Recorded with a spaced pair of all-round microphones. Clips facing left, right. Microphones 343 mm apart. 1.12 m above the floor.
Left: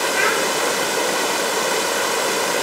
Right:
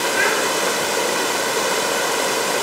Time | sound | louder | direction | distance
0.1 | a child speaking | even | 65° left (ahead or behind) | 4 m